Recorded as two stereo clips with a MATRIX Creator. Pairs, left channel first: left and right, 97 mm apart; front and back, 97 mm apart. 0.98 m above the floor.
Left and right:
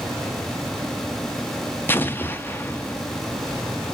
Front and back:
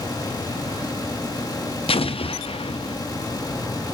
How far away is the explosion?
About 0.7 m.